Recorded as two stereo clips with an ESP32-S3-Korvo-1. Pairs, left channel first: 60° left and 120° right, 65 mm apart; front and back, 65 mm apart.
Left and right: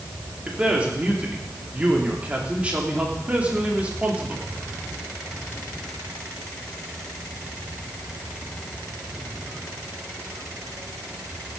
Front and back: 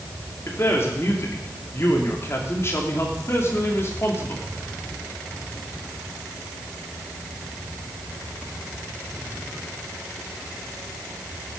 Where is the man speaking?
50° right, 2.5 m.